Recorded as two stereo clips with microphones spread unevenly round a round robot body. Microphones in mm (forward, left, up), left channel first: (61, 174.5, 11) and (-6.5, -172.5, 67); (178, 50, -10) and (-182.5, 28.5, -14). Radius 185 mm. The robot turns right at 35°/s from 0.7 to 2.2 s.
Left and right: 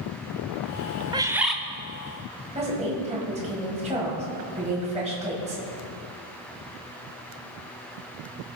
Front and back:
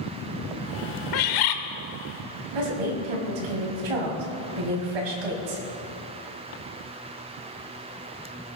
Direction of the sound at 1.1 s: 20° right.